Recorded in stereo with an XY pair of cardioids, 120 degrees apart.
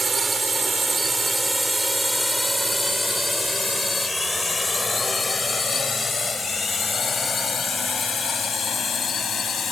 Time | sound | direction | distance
0.0 | a drone | 25° right | ?